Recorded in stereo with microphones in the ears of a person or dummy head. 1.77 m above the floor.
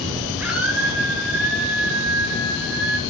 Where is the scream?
5° right (ahead or behind), 6 m.